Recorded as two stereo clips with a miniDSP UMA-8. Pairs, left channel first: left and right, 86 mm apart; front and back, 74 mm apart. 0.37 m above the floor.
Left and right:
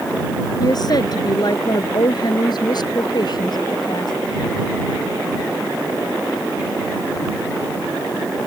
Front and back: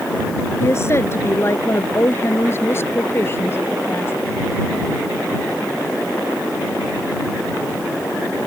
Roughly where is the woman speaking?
Ahead left.